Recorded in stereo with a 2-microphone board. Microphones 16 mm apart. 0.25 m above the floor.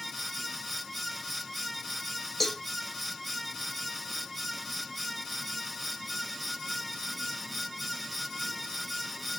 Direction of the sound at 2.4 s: 5° left (ahead or behind).